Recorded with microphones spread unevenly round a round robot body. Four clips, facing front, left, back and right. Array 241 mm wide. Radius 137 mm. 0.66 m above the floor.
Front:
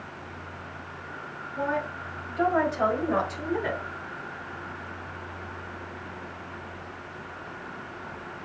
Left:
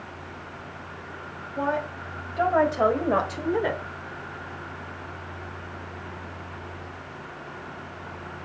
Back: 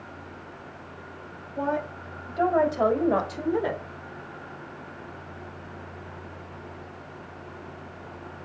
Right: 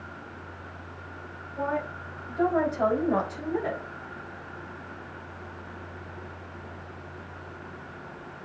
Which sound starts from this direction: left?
A woman speaking, at 1.6 s.